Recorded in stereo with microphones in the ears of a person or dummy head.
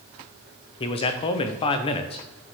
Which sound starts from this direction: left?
A man speaking, at 0.8 s.